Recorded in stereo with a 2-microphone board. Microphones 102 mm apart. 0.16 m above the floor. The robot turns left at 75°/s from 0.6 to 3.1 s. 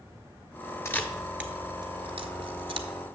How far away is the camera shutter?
About 0.7 m.